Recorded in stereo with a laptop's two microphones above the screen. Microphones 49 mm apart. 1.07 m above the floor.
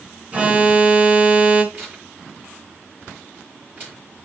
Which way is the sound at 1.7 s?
45° right (ahead or behind).